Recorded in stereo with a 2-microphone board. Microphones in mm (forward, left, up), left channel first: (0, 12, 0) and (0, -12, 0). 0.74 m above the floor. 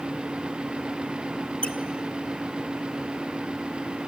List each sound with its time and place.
1.6 s a squeak: 45° left (ahead or behind), 1.3 m